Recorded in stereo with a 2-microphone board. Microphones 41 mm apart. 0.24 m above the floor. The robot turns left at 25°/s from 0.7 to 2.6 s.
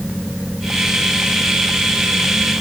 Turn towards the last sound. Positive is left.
No sound to turn to.